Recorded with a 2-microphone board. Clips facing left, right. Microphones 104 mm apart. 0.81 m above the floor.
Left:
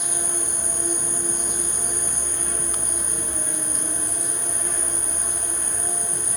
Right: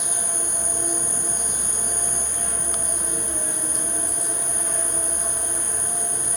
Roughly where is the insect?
Right.